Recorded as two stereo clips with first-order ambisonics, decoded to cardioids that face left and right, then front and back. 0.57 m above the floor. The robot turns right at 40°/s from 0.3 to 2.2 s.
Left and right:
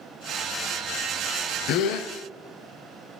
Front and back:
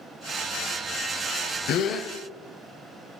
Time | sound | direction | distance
1.7 | a gasp | 50° left | 0.6 m